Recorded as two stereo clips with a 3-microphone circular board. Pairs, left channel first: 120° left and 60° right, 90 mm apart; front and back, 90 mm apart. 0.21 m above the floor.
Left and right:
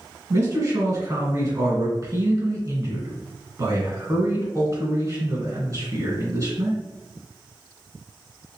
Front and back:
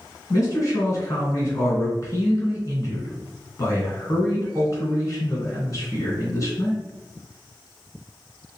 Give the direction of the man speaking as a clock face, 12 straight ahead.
1 o'clock.